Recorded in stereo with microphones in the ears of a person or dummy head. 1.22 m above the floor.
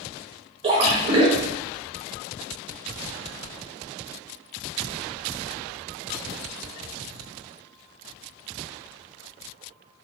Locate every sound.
0.6 s a splash: 35° right (ahead or behind), 0.6 m